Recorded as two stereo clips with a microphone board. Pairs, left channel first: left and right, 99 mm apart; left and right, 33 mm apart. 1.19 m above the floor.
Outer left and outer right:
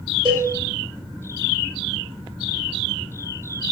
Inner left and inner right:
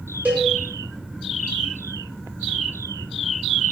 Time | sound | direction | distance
0.2 | a cowbell | 50° right (ahead or behind) | 0.7 m